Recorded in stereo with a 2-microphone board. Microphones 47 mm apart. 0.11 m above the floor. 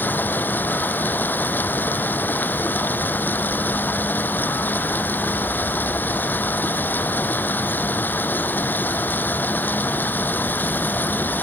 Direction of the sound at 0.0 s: 40° left (ahead or behind).